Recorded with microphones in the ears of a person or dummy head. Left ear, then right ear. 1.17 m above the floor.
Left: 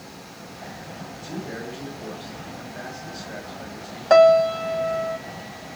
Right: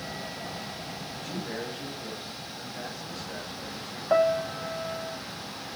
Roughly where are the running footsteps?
I don't hear running footsteps.